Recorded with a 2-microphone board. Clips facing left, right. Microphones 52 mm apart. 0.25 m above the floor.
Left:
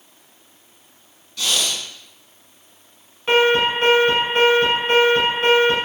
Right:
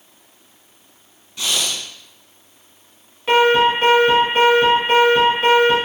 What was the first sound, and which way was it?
Breathing, 25° right (ahead or behind).